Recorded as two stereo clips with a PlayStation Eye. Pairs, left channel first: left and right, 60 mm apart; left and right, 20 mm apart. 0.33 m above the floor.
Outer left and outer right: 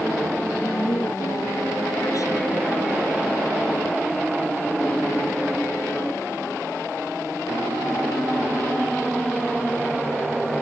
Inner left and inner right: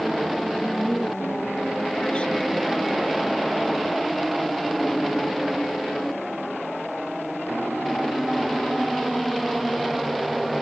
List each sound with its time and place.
0.6 s a woman speaking: 60° left (ahead or behind)